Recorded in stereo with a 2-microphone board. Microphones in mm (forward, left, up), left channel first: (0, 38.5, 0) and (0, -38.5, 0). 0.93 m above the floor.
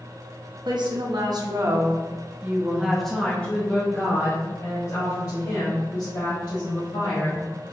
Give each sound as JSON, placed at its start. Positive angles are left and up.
{"t": 0.7, "sound": "a woman speaking", "side_deg": -70, "distance_m": 1.2}